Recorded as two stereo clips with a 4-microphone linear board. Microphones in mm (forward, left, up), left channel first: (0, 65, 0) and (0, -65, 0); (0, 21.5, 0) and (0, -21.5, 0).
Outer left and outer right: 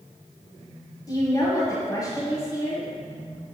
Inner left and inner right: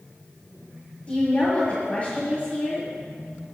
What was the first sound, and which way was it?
A woman speaking, 30° left (ahead or behind).